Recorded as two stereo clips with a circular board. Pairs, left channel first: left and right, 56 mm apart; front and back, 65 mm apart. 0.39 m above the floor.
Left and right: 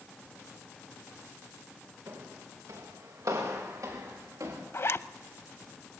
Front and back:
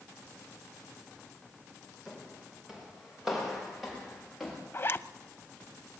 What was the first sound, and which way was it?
Footsteps, 100° right.